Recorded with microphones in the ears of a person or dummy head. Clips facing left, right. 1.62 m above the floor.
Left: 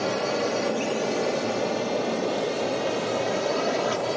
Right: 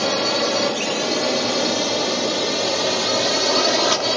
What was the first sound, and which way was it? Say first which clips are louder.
A drone: right 4 dB; 70° right (ahead or behind).